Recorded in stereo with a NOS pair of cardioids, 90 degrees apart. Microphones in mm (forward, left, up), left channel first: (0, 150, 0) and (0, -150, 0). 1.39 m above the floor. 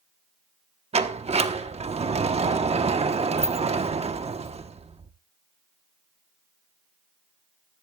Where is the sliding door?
20° right, 1.0 m.